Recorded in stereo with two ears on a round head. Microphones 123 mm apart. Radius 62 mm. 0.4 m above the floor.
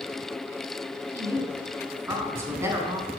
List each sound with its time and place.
1.1 s a woman speaking: 20° right (ahead or behind), 4 m